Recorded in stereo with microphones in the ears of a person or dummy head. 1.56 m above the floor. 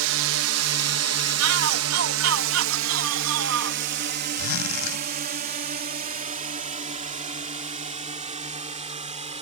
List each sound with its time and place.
0.0 s a drone: 70° right (ahead or behind); by 9.4 s 30° right (ahead or behind)
1.4 s a shout: 80° right
4.4 s a zipper: 75° left (ahead or behind)